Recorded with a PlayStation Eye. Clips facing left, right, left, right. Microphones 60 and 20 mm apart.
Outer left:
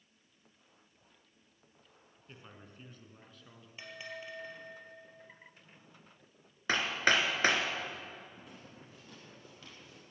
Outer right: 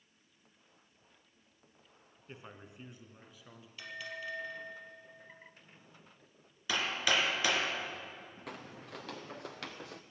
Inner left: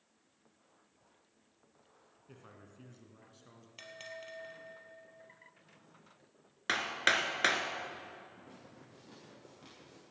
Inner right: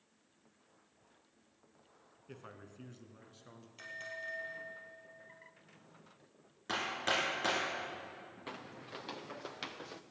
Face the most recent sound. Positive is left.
turn(degrees=-70)  # may be behind; listen again after turning